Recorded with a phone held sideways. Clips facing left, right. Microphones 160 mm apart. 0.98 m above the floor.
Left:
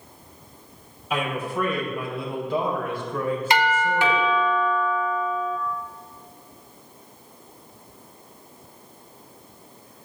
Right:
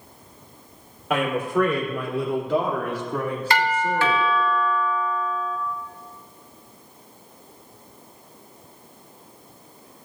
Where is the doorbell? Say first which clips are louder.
Even; 20° left (ahead or behind), 1.0 m.